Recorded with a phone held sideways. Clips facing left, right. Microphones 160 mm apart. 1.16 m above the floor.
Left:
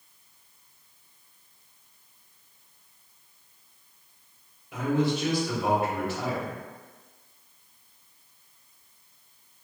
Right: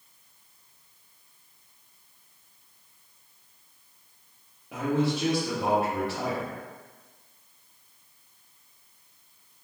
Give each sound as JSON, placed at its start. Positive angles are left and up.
{"t": 4.7, "sound": "a man speaking", "side_deg": -70, "distance_m": 1.4}